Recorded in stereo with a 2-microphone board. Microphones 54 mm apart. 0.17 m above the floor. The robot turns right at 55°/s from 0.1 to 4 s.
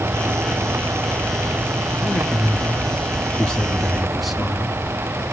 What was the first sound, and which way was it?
A man speaking, 70° left.